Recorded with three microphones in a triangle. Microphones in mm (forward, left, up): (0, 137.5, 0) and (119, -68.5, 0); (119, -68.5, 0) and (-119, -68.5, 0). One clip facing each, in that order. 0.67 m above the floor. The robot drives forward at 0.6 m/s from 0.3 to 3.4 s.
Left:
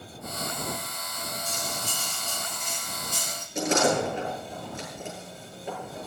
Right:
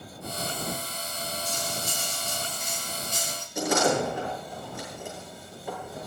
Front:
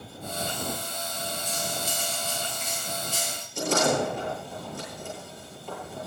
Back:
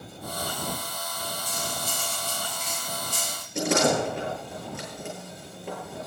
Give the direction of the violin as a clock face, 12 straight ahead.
I don't hear a violin.